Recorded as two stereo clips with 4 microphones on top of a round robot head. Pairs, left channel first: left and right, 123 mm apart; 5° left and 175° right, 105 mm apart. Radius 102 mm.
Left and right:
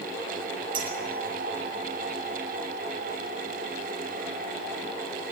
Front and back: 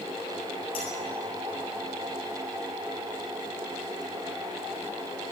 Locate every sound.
0.7 s a clink: 40° right, 8 m